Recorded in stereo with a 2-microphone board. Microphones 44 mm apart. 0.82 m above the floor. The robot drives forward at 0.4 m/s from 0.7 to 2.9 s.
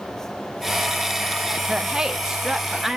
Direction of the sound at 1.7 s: 15° right (ahead or behind).